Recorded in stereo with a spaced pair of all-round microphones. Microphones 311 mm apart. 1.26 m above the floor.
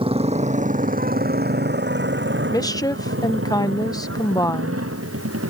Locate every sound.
0.0 s a motorcycle: 15° right (ahead or behind); by 5.5 s 45° right (ahead or behind)
2.5 s a woman speaking: 10° left (ahead or behind)